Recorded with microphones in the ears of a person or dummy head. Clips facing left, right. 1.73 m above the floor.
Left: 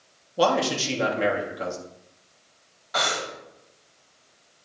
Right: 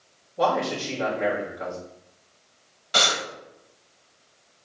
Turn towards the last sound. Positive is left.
turn(degrees=-40)  # may be behind; listen again after turning